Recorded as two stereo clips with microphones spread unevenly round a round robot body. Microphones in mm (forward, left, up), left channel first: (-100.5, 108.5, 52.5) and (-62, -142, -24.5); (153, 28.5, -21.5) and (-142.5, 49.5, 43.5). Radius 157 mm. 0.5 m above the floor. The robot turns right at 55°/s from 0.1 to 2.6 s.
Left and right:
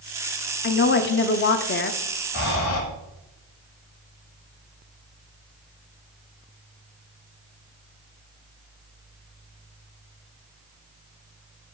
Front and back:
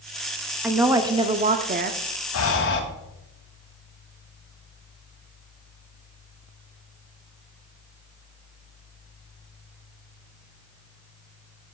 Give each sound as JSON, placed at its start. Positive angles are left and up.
{"t": 0.6, "sound": "a woman speaking", "azimuth_deg": 65, "distance_m": 0.7}
{"t": 2.3, "sound": "breathing", "azimuth_deg": 30, "distance_m": 1.6}